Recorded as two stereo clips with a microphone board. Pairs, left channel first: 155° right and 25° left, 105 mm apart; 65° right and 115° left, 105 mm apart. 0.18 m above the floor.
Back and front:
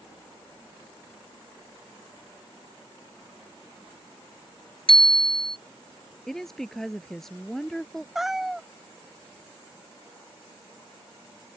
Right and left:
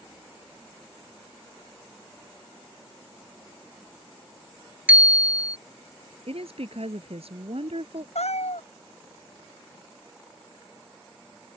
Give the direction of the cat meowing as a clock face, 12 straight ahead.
2 o'clock.